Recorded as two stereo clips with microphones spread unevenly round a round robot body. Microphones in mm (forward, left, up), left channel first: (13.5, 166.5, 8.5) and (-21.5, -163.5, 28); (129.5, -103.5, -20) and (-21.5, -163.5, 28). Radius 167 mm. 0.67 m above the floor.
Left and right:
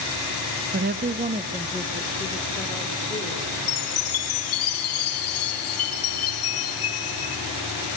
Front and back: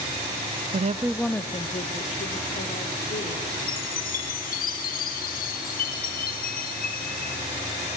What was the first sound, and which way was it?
A woman speaking, 140° right.